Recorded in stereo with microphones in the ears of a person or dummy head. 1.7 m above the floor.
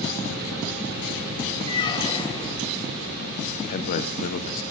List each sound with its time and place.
1.7 s a squeak: 25° left (ahead or behind), 1.2 m
3.7 s a man speaking: 45° left (ahead or behind), 0.8 m